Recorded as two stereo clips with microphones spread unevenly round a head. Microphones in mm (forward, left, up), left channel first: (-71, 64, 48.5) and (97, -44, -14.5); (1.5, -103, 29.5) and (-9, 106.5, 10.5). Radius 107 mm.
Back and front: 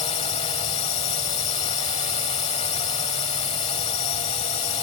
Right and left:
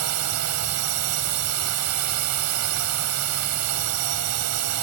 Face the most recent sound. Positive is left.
turn(degrees=85)